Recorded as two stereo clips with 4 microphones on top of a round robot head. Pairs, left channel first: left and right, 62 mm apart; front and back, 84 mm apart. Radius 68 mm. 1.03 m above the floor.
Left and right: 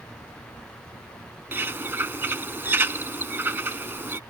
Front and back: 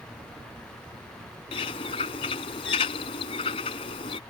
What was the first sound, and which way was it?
A bird, 35° right.